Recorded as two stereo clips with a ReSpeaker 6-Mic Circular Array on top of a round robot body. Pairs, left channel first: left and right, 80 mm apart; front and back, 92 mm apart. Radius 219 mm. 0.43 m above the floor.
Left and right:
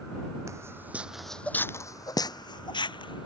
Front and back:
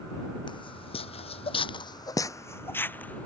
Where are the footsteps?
35° right; by 3.3 s 75° left.